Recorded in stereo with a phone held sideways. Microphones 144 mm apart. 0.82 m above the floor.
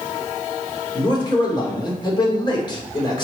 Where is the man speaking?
30° left (ahead or behind), 2.5 m.